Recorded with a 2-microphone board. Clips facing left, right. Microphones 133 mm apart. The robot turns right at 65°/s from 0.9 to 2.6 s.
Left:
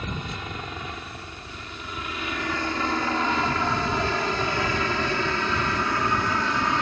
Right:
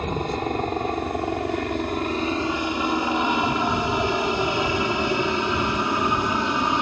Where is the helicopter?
45° right (ahead or behind); by 6.8 s 20° right (ahead or behind).